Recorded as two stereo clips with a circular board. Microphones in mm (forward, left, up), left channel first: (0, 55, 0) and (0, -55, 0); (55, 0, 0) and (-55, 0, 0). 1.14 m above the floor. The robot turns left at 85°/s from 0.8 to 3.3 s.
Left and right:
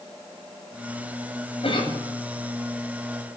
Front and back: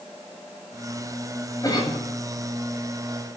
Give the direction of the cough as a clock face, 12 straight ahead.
10 o'clock.